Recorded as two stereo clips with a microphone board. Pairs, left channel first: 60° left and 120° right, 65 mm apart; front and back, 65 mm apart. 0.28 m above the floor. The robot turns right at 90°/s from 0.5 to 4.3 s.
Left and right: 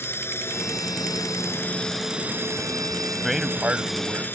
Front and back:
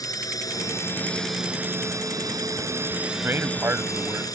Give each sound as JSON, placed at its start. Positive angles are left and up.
{"t": 0.0, "sound": "a drone", "azimuth_deg": 10}
{"t": 3.1, "sound": "a man speaking", "azimuth_deg": 140}